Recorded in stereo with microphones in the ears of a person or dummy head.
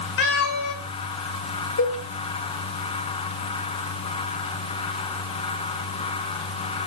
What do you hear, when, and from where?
0.2 s a cat meowing: 60° left (ahead or behind), 2.5 m
1.8 s a cowbell: 70° left (ahead or behind), 4.5 m